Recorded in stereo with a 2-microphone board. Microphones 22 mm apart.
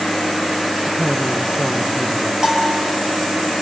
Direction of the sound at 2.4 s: 30° right (ahead or behind).